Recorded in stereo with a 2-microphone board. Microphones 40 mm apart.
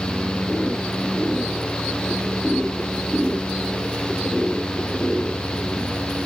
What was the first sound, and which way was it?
Only background noise.